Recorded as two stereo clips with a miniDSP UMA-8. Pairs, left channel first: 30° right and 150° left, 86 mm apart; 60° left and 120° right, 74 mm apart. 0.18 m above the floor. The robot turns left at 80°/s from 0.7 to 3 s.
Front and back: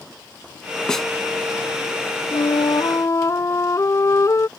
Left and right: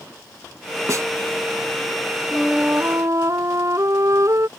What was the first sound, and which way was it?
A snare drum, 105° right.